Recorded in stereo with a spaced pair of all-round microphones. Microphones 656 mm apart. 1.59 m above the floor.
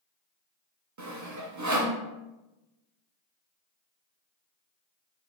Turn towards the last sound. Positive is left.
turn(degrees=-30)  # may be behind; listen again after turning